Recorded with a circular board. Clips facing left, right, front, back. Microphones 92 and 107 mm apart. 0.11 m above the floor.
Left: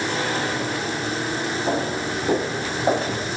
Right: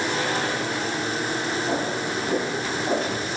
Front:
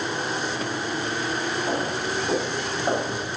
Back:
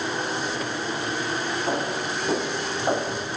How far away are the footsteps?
About 4.5 m.